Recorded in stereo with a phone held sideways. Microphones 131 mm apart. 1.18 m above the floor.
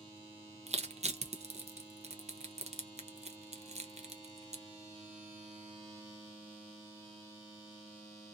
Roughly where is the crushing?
Right.